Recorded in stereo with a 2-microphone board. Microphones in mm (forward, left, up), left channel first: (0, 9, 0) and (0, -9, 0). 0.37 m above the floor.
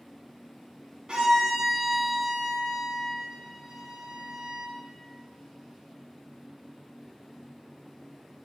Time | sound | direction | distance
1.1 | a violin | 40° right (ahead or behind) | 1.1 m